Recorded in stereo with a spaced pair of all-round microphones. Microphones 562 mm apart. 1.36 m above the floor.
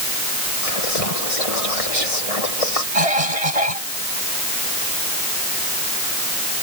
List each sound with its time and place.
0.6 s whispering: 75° left (ahead or behind)
2.9 s a cough: 80° right